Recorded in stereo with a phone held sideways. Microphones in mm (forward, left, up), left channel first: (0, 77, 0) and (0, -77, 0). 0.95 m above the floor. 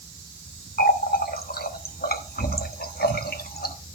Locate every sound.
0.8 s a running tap: 85° left, 1.0 m